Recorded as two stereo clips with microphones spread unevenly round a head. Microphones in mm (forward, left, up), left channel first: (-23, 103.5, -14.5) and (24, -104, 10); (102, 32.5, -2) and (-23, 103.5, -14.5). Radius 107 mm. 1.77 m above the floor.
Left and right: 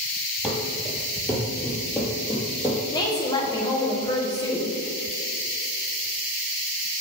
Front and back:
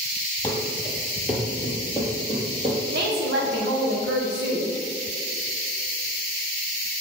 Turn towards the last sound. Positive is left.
turn(degrees=175)